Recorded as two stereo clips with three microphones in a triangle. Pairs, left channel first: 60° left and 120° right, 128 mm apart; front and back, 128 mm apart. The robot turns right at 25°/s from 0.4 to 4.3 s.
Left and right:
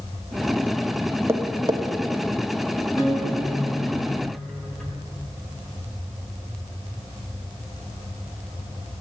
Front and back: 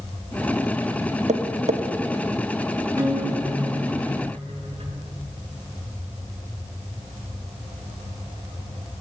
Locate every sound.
1.3 s tapping: 175° left, 0.7 m; by 1.8 s 170° right, 0.7 m
3.0 s a guitar: 110° left, 3.5 m; by 5.0 s 145° left, 3.5 m